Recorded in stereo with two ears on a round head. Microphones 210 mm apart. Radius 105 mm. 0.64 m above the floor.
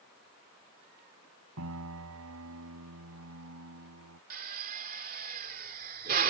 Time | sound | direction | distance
1.6 | a piano | 70° right (ahead or behind) | ?
4.3 | a drill | 40° right (ahead or behind) | ?